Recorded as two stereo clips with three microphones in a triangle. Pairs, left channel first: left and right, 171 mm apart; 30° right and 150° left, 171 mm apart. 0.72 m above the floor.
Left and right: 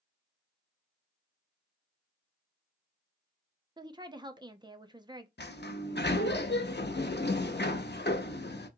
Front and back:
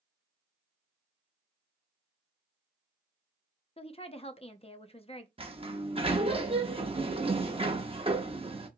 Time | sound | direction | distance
3.8 | a woman speaking | 45° right | 0.6 m
5.4 | a sliding door | 95° left | 0.6 m